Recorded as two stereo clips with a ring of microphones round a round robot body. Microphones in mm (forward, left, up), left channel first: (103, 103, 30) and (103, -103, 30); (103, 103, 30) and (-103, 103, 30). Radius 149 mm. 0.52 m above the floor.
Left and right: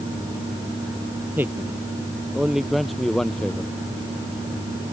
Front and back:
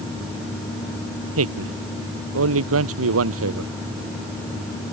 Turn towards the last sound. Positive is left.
turn(degrees=175)